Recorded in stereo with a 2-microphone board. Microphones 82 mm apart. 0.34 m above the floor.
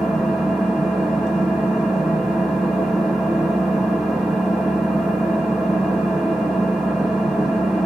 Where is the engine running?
10° right (ahead or behind), 1.1 m.